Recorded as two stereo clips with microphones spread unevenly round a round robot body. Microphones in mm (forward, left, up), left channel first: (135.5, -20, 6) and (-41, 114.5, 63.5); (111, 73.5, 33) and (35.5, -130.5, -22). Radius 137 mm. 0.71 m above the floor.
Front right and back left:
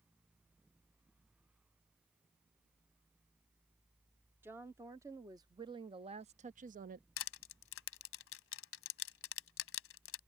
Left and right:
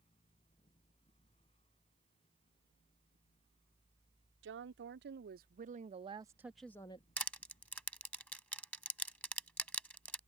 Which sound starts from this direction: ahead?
Crushing, at 7.2 s.